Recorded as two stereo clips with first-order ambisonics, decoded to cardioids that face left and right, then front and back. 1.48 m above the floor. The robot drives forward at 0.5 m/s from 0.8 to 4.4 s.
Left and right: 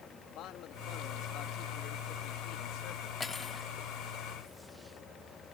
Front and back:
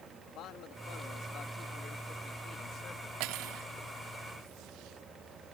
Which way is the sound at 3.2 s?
160° left.